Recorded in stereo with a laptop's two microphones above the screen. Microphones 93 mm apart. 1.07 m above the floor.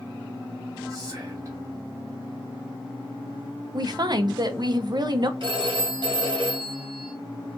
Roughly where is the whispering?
Right.